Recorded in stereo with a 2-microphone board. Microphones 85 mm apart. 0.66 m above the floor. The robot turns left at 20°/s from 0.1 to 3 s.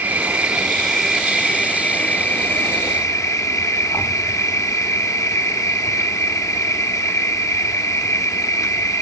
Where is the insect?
160° right, 0.8 m; by 9.0 s 140° left, 0.8 m.